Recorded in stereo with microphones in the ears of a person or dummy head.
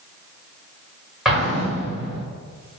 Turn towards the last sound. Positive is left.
turn(degrees=-5)  # may be behind; listen again after turning